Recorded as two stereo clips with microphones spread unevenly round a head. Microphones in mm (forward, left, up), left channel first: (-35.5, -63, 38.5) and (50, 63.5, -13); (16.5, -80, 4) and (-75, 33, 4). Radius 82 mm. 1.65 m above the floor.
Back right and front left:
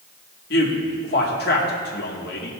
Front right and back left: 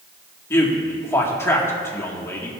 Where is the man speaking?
125° right, 1.9 m.